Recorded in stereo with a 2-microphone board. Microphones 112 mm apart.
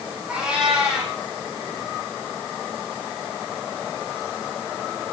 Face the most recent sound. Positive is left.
turn(degrees=-10)  # may be behind; listen again after turning